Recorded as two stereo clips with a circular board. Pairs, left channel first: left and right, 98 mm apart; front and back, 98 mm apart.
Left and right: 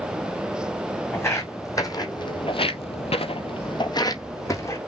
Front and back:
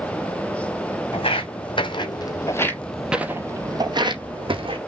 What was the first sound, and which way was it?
Footsteps, 25° left.